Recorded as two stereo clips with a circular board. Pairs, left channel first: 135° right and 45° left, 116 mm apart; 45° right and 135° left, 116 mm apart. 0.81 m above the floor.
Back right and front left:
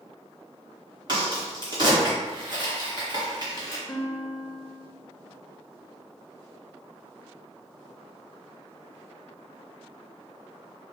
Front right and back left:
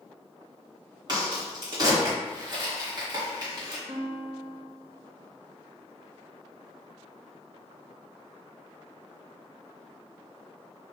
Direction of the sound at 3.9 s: 170° left.